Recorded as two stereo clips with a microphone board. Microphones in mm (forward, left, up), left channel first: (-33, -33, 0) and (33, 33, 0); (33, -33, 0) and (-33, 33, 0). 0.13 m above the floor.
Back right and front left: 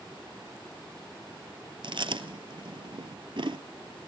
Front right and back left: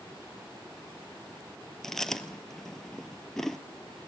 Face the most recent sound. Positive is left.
turn(degrees=40)